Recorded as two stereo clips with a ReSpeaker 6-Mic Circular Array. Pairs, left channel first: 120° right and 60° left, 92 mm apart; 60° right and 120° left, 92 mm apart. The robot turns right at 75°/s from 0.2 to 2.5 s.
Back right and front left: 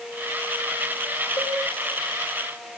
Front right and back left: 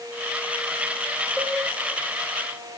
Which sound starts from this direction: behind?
A cowbell, at 1.4 s.